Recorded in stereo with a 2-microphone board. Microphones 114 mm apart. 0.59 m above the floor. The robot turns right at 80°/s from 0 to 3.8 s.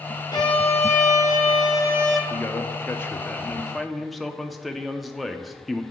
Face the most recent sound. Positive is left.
turn(degrees=0)  # may be behind; listen again after turning